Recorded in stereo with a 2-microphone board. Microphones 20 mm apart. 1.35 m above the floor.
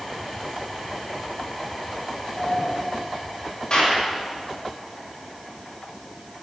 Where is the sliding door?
30° left (ahead or behind), 3.5 m.